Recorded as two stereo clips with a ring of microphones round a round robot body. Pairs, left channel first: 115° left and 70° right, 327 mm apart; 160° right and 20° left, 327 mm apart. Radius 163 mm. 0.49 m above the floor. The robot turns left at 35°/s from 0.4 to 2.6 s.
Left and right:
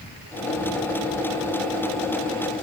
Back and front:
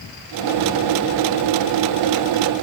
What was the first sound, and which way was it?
Only background noise.